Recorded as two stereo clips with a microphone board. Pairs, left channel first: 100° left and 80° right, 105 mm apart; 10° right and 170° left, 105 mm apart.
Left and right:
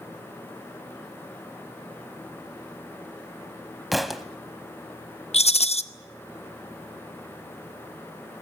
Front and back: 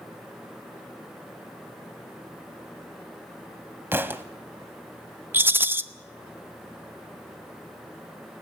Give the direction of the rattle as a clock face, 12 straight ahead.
9 o'clock.